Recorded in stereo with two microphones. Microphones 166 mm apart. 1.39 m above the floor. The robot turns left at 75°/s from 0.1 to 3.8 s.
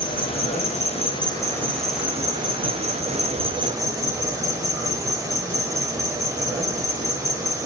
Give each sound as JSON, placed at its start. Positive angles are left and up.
{"t": 0.0, "sound": "an insect", "azimuth_deg": 130, "distance_m": 0.8}